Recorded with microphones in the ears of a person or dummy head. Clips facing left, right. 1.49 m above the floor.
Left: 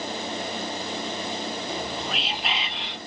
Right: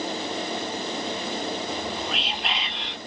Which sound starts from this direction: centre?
Whispering, at 1.7 s.